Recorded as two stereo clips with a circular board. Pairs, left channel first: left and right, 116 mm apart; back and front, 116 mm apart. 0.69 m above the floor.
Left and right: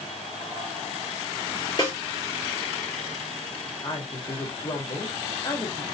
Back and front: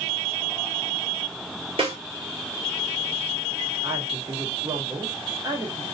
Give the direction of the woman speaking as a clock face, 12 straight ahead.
10 o'clock.